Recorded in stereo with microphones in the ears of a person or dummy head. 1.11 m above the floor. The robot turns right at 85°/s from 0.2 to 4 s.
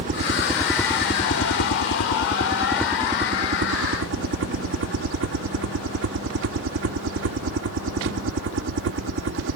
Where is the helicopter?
45° right; by 9.6 s 80° right.